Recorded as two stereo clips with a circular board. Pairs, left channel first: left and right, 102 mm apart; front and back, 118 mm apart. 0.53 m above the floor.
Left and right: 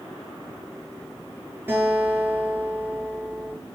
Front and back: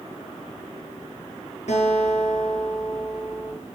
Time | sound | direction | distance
1.7 | a guitar | 25° right | 8 m